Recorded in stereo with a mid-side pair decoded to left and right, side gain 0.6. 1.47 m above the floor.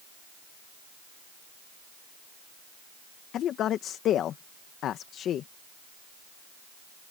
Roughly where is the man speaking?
Ahead left.